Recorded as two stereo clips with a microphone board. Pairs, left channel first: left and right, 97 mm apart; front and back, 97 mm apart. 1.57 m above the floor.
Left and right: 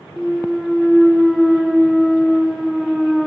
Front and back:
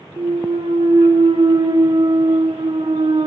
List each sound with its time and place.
0.2 s a clunk: straight behind, 0.8 m